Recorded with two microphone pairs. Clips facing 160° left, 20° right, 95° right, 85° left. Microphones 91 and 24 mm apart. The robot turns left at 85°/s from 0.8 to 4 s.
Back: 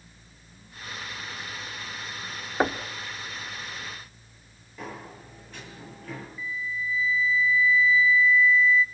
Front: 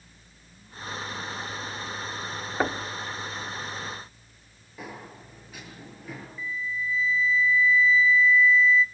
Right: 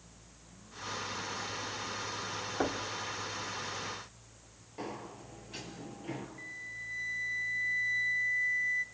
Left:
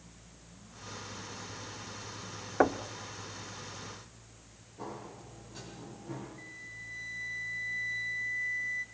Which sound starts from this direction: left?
Knocking, at 2.6 s.